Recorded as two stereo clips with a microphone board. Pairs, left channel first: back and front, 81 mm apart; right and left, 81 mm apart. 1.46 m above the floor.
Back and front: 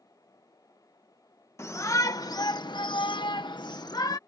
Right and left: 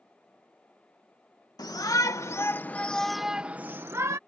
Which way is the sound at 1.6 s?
125° right.